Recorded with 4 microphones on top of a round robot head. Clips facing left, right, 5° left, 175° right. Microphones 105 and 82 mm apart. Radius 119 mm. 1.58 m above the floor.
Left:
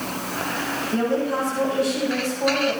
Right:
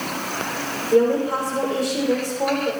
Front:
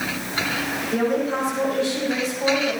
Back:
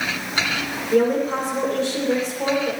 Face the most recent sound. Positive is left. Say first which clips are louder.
# right 6 dB, back 4 dB
turn(degrees=-120)